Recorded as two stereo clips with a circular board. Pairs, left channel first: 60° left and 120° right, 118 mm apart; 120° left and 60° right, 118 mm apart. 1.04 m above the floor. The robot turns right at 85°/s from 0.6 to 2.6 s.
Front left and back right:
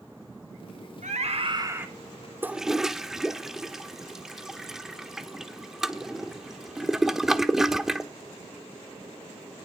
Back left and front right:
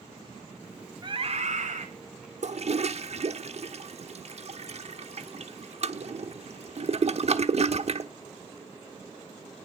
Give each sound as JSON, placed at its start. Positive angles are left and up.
{"t": 1.0, "sound": "a scream", "azimuth_deg": -115, "distance_m": 3.0}
{"t": 2.4, "sound": "a toilet flushing", "azimuth_deg": -50, "distance_m": 1.1}